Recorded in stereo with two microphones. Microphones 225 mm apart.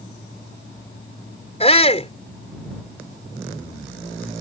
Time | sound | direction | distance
1.6 | a shout | 30° left (ahead or behind) | ?